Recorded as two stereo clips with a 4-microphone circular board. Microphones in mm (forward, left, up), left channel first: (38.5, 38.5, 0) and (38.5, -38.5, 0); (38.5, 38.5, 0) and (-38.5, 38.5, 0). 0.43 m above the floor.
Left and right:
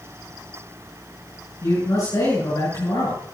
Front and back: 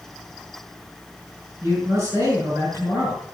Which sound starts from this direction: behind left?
A man speaking, at 1.6 s.